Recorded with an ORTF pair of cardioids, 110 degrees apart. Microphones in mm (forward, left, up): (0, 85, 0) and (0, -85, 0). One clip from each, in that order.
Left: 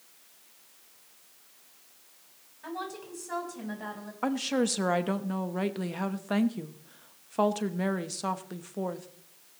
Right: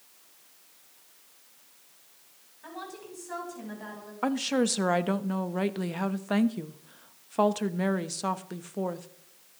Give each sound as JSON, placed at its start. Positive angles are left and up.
{"t": 2.6, "sound": "a woman speaking", "azimuth_deg": 20, "distance_m": 8.0}
{"t": 4.2, "sound": "a woman speaking", "azimuth_deg": -10, "distance_m": 0.9}